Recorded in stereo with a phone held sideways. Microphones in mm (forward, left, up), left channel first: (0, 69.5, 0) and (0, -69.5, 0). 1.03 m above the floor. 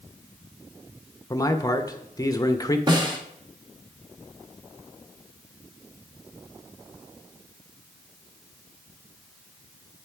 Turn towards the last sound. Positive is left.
turn(degrees=-30)  # may be behind; listen again after turning